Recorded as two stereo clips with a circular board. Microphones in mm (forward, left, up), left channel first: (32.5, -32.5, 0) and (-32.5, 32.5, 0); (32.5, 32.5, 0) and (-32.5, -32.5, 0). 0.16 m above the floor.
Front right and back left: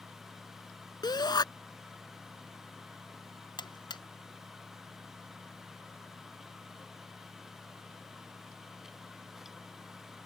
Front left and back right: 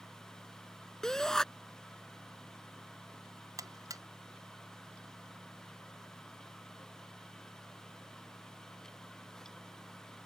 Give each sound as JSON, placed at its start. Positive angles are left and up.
{"t": 1.0, "sound": "a shout", "azimuth_deg": -40}
{"t": 3.6, "sound": "a buzzer", "azimuth_deg": -85}